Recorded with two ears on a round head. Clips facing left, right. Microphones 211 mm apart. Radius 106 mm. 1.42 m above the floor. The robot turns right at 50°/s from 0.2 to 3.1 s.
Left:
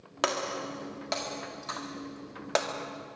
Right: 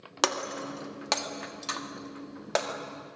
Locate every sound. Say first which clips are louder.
0.2 s breaking glass: even; 60° right (ahead or behind), 1.8 m; by 2.7 s 5° left (ahead or behind), 1.8 m